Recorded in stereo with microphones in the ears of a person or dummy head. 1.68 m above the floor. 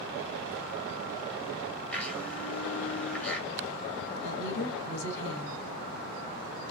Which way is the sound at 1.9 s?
10° left (ahead or behind).